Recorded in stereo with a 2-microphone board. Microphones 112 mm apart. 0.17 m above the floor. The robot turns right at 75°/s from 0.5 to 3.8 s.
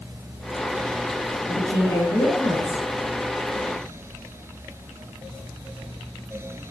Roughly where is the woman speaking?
Behind left.